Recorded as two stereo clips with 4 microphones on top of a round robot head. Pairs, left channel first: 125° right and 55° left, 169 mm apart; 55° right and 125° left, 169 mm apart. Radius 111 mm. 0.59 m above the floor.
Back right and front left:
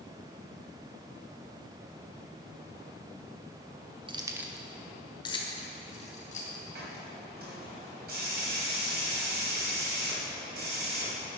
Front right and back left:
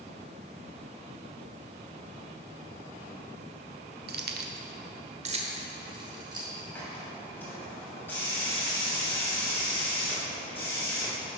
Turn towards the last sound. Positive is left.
turn(degrees=25)